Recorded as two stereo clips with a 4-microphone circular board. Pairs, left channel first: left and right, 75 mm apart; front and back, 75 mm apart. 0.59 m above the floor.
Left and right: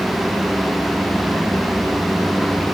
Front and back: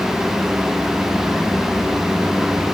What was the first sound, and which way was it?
Only background noise.